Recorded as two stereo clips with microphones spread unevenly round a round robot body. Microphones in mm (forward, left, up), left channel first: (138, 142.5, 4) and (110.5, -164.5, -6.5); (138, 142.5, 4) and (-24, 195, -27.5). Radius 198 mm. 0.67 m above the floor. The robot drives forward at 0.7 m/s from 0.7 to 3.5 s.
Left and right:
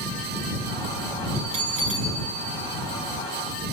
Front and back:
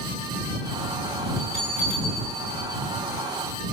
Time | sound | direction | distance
1.4 | a bell | 85° right | 5.5 m